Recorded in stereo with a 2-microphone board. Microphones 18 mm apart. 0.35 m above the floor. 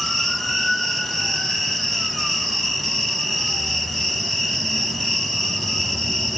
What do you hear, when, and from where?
0.0 s an insect: 5° left (ahead or behind), 0.8 m